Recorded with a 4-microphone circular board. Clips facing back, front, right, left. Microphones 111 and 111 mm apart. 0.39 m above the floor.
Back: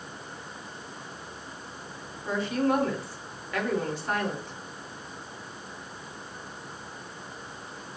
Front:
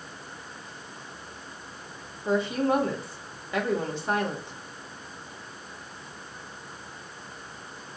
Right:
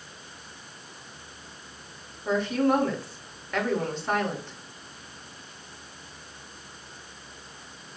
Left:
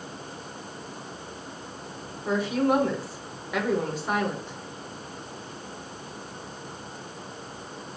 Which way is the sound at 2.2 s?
25° left.